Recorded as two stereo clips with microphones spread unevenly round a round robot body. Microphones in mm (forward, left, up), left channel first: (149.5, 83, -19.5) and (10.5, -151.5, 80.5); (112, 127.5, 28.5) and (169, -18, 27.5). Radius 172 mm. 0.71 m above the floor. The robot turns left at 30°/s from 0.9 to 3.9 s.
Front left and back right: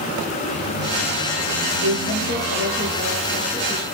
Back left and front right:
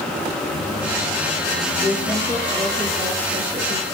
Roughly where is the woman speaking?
Behind.